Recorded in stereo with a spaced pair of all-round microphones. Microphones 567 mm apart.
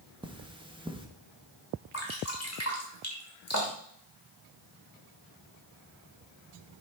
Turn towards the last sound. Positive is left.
turn(degrees=25)  # may be behind; listen again after turning